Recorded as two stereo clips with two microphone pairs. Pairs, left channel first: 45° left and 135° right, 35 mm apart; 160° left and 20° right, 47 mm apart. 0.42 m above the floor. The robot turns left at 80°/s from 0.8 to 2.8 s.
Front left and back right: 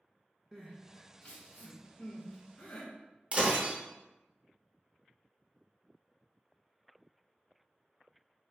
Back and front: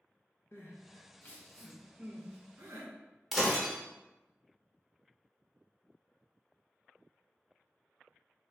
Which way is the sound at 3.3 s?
105° right.